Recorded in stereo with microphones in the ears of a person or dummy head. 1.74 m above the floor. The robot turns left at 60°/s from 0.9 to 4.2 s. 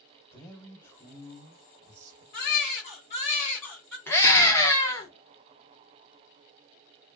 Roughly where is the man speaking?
Ahead.